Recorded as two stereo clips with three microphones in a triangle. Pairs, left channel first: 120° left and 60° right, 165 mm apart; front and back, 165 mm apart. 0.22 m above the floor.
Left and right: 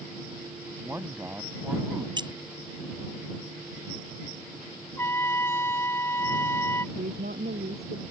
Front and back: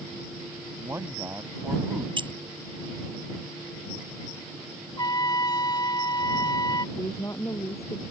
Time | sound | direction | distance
0.8 | a man speaking | 120° right | ?
2.2 | keys jangling | 120° right | ?
5.0 | a trumpet | 50° left | ?
7.0 | a woman speaking | 70° right | ?